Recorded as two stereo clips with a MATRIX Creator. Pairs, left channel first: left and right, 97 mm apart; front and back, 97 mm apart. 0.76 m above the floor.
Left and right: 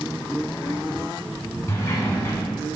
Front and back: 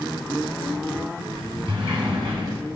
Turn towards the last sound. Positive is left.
turn(degrees=150)